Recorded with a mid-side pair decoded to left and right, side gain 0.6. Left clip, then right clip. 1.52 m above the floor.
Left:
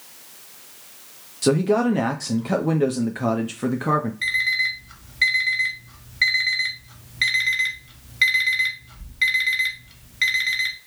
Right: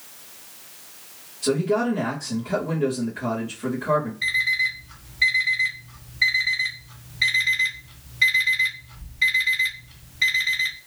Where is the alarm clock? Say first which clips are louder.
Left 1 dB; 40° left, 1.9 m.